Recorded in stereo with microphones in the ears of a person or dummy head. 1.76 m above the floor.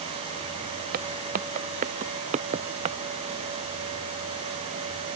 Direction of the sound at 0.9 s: 45° right (ahead or behind).